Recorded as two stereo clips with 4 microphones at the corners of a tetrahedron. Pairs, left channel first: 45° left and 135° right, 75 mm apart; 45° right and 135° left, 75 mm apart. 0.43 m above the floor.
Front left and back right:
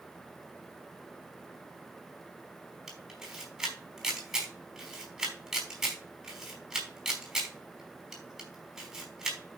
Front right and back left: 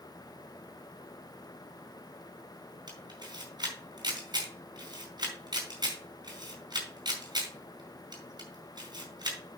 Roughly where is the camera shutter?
Behind left.